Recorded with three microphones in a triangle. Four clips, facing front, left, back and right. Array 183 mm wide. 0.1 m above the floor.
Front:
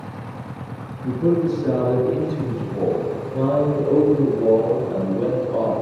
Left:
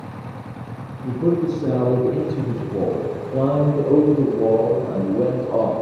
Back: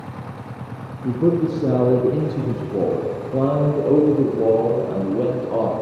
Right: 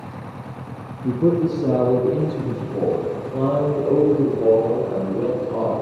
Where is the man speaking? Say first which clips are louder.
Right 1 dB, back 1 dB; 140° right, 1.6 m; by 5.7 s 135° left, 3.5 m.